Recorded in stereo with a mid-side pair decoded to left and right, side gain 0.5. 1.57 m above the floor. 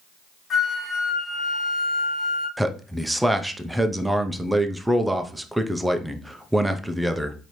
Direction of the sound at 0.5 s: 40° left.